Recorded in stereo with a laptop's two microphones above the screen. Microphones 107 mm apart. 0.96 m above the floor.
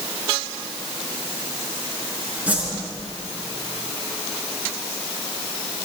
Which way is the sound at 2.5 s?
15° right (ahead or behind).